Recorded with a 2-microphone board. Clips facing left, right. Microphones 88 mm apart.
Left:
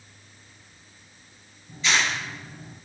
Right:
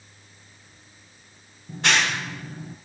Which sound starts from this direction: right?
A clap, at 1.7 s.